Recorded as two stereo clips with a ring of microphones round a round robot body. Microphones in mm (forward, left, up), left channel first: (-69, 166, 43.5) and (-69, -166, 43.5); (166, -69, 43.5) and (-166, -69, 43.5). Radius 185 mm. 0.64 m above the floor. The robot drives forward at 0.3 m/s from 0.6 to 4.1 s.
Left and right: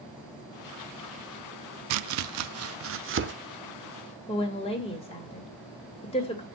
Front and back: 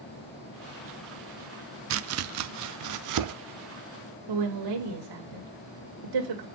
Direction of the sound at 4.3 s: 165° left.